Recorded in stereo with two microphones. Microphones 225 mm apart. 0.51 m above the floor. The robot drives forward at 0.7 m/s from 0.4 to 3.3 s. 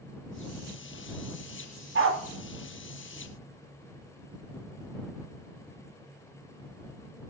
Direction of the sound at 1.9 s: 60° right (ahead or behind).